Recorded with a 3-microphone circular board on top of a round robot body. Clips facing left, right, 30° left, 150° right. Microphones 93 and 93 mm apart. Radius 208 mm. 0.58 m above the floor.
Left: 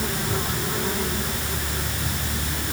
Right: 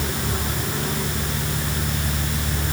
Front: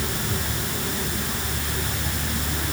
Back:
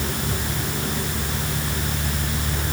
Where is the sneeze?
No sneeze in this recording.